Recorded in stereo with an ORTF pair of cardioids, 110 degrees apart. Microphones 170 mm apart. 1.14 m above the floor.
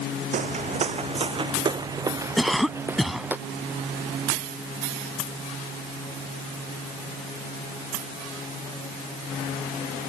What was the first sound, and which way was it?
Footsteps, 50° right.